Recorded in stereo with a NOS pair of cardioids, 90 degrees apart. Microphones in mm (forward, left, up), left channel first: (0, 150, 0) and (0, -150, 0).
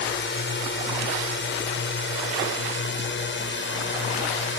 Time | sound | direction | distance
0.0 | a drone | 40° left | ?